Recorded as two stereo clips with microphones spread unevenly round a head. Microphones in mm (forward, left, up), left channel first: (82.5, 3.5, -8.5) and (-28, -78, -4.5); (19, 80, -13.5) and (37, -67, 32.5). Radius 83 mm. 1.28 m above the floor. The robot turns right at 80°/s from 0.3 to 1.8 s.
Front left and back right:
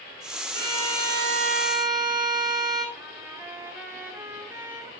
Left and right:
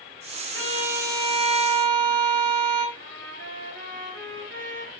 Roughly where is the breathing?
I don't hear breathing.